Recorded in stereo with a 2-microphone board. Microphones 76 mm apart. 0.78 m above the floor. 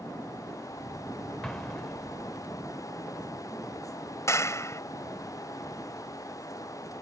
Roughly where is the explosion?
Centre.